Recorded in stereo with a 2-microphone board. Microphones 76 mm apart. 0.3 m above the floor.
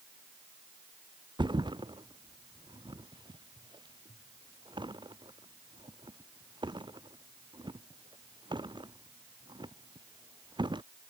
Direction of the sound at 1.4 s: 85° right.